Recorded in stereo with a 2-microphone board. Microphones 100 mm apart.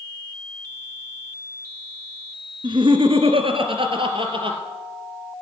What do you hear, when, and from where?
2.6 s laughter: 50° right (ahead or behind), 1.6 m; by 4.6 s 55° right (ahead or behind), 3 m